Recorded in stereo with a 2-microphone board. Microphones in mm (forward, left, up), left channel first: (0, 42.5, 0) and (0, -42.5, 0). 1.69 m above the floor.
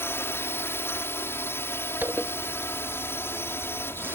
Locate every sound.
0.0 s a drone: 30° left (ahead or behind)
2.0 s a zipper: 25° right (ahead or behind)